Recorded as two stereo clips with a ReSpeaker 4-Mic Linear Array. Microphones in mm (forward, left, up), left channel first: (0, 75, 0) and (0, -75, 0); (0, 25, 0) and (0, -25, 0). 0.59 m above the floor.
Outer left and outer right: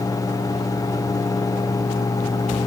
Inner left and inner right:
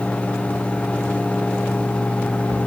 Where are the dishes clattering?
No dishes clattering in this recording.